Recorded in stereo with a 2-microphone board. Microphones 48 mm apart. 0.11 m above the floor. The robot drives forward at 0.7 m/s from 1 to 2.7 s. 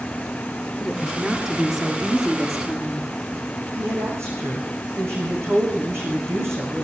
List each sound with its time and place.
0.8 s a woman speaking: 5° right (ahead or behind), 1.6 m
3.8 s a woman speaking: 75° right (ahead or behind), 6 m